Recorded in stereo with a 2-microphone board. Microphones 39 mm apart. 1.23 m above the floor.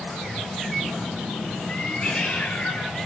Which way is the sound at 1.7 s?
30° left (ahead or behind).